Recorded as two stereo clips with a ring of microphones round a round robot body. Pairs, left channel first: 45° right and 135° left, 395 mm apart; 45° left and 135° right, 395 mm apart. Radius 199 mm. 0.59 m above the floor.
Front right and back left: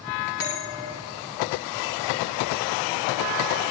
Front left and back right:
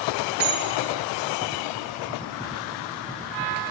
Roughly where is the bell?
Right.